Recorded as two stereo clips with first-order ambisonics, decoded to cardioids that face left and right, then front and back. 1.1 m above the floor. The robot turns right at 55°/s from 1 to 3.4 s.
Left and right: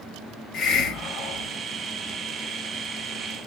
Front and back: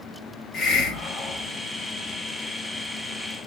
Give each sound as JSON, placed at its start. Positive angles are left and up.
{"t": 0.5, "sound": "a hiss", "azimuth_deg": 50, "distance_m": 1.6}